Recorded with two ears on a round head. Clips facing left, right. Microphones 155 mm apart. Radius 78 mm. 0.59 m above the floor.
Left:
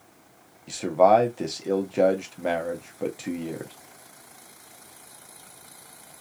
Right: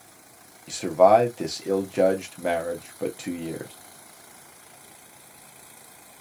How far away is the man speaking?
About 0.6 m.